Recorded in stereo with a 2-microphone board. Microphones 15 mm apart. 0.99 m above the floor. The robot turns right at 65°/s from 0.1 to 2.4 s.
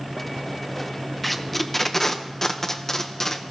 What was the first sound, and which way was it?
Tape being pulled, centre (ahead or behind).